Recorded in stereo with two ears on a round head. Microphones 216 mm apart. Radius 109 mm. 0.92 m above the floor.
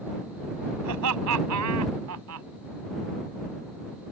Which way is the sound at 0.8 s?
85° right.